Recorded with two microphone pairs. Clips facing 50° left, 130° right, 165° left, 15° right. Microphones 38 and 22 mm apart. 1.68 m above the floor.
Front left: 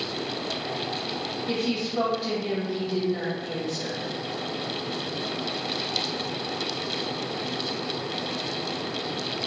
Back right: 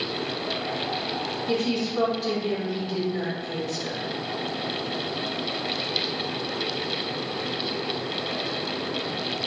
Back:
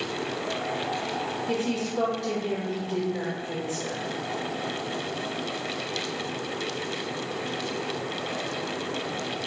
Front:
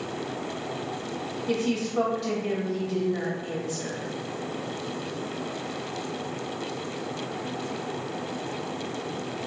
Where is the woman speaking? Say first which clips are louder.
Back right 2 dB, front 4 dB; 15° right, 1.7 m.